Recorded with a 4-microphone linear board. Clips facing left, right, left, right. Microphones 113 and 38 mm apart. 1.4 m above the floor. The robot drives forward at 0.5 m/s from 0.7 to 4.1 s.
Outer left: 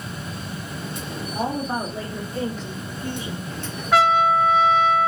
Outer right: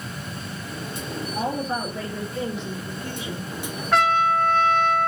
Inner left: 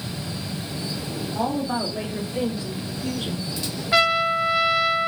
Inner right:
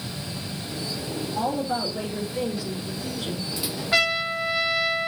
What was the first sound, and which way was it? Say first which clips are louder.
A woman speaking: outer left 1 dB, inner left 1 dB; 30° left (ahead or behind).